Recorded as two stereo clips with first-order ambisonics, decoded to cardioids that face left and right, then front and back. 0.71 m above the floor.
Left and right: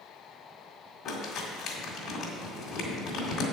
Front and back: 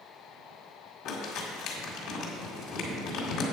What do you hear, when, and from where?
1.1 s crumpling: 30° left, 1.9 m